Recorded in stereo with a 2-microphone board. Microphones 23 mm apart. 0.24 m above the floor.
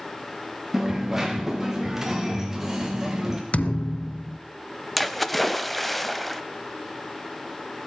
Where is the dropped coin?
15° right (ahead or behind), 3 m.